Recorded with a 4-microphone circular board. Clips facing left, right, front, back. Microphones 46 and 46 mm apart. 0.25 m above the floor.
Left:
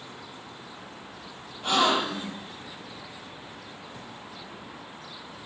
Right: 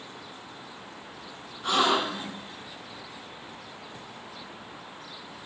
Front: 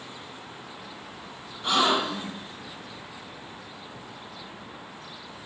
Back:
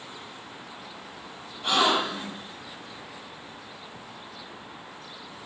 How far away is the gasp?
About 4.5 m.